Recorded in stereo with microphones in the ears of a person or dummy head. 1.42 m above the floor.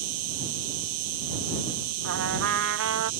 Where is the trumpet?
75° right (ahead or behind).